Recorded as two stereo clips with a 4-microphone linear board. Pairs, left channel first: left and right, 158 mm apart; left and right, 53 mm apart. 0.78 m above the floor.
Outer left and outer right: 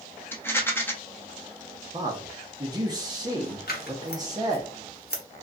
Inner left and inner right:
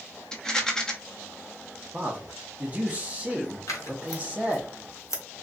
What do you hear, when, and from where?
0.3 s a rattle: 15° left (ahead or behind), 0.6 m
1.9 s a man speaking: 25° right (ahead or behind), 0.9 m
3.7 s scissors: 80° left, 0.8 m